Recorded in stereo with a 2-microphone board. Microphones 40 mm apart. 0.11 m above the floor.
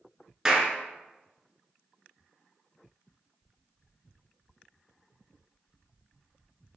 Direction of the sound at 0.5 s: 20° right (ahead or behind).